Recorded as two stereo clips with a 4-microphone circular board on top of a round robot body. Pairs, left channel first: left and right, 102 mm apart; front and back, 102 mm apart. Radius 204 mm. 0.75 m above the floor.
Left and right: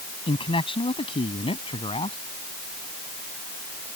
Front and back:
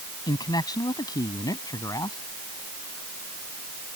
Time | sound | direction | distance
0.3 | a man speaking | 50° left | ?